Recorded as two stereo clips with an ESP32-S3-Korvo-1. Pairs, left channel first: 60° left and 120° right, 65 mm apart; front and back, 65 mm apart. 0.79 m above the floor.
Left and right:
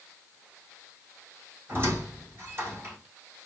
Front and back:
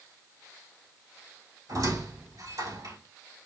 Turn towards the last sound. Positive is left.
turn(degrees=-170)